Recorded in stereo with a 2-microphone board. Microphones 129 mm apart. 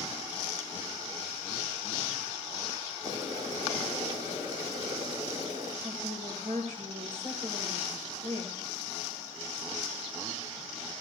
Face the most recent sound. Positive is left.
turn(degrees=-80)